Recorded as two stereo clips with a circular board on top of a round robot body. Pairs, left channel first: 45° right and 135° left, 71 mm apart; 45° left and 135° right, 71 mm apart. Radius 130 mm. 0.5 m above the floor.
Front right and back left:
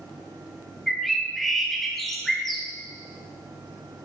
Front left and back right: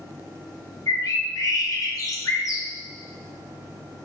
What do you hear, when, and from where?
0.9 s a bird: 40° left, 1.6 m